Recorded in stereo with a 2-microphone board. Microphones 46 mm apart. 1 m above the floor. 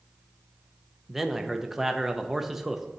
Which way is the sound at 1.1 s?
5° right (ahead or behind).